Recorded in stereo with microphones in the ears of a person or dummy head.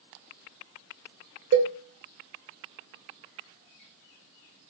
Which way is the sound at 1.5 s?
60° right (ahead or behind).